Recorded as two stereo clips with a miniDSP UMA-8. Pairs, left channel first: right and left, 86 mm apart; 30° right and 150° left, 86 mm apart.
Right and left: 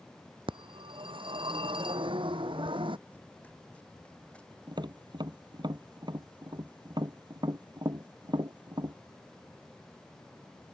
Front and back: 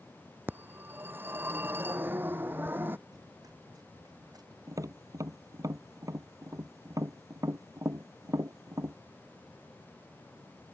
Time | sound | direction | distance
0.5 | a phone ringing | 85° left | ?
3.1 | running footsteps | 165° right | ?
4.7 | tapping | 105° left | ?